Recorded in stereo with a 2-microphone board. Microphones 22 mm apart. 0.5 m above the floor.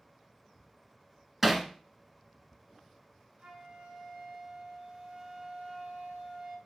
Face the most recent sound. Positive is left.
turn(degrees=-60)  # may be behind; listen again after turning